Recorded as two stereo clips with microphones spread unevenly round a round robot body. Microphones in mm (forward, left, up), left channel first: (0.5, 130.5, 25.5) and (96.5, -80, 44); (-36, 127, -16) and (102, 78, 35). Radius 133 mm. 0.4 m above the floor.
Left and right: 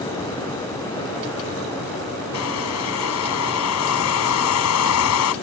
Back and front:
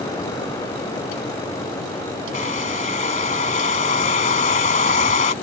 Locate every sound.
2.3 s a hair dryer: 130° left